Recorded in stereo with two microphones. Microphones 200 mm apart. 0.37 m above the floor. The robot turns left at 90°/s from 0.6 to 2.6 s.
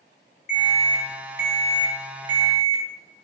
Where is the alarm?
140° left, 2.5 m; by 2.8 s 40° right, 2.5 m.